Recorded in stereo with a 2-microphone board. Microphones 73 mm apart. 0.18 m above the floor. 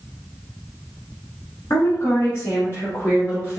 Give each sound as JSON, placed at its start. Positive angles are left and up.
{"t": 1.7, "sound": "a woman speaking", "side_deg": 45, "distance_m": 1.4}